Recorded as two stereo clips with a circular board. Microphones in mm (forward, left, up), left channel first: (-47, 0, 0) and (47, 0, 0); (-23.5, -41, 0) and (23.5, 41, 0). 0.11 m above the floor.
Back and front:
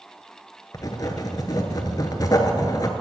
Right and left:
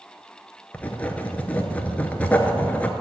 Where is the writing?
175° left, 0.7 m.